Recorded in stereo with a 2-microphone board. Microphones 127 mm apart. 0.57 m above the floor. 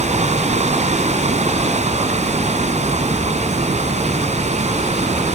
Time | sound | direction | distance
0.0 | running water | 65° right (ahead or behind) | 2 m